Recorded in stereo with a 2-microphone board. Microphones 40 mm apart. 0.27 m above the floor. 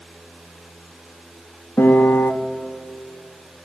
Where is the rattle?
No rattle in this recording.